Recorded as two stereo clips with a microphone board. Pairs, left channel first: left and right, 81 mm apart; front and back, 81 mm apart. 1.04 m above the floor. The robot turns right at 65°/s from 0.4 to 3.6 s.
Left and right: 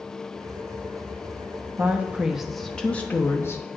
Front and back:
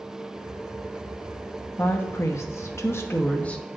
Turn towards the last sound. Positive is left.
turn(degrees=70)